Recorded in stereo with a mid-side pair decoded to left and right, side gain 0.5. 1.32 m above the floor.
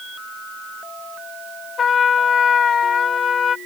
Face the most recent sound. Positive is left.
turn(degrees=45)